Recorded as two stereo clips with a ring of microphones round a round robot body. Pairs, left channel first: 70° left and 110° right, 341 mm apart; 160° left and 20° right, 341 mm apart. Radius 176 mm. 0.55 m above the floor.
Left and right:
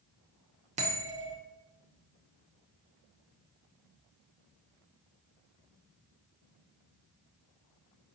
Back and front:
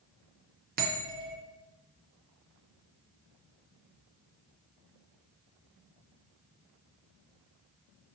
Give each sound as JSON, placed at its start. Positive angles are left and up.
{"t": 0.8, "sound": "a bell", "azimuth_deg": -60, "distance_m": 0.9}